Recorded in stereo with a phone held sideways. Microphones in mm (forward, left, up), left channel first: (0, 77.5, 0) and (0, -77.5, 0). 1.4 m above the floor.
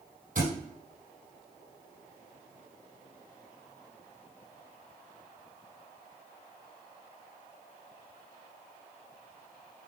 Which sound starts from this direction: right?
A thud, at 0.3 s.